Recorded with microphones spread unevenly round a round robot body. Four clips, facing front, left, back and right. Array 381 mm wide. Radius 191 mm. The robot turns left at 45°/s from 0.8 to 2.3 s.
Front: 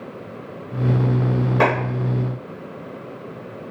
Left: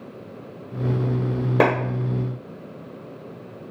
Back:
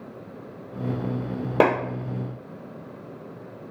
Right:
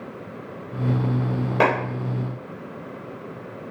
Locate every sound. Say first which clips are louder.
1.6 s a clap: left 1 dB, even; 145° left, 1.0 m; by 1.7 s 140° left, 1.0 m